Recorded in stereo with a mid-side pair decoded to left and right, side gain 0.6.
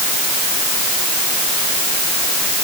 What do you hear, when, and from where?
Only background noise.